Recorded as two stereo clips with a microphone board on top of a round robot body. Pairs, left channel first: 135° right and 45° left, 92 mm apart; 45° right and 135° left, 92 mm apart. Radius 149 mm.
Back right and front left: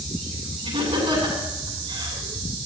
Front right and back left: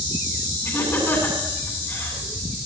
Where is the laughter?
20° left, 8.5 m.